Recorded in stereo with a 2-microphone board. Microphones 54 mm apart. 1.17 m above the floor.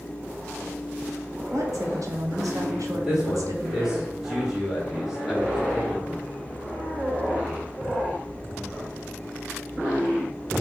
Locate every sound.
1.5 s a woman speaking: 80° right, 1.9 m
2.9 s a man speaking: 10° right (ahead or behind), 3.5 m